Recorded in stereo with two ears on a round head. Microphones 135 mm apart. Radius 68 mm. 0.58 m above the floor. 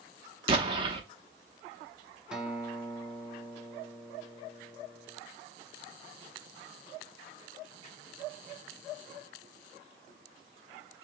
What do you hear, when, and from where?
0.5 s an explosion: 35° right (ahead or behind), 0.7 m
2.3 s a guitar: 5° right (ahead or behind), 0.7 m